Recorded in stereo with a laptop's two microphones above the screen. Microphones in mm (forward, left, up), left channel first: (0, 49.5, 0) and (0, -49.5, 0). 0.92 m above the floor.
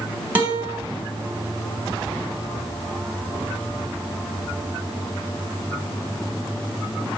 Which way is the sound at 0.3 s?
20° right (ahead or behind).